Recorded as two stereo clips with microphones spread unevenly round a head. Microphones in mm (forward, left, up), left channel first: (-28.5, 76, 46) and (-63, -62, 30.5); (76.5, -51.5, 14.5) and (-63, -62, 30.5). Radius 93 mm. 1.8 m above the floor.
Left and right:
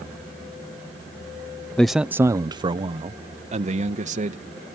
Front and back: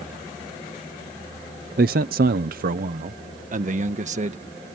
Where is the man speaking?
155° left; by 4.5 s 140° right.